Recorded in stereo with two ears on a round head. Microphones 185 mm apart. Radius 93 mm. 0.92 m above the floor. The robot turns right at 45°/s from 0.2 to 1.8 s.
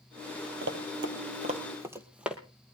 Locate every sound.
0.6 s running footsteps: 55° right (ahead or behind), 1.6 m; by 2.4 s 5° right (ahead or behind), 1.6 m